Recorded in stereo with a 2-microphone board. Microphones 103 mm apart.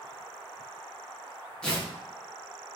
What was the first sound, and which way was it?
Tearing paper, 10° left (ahead or behind).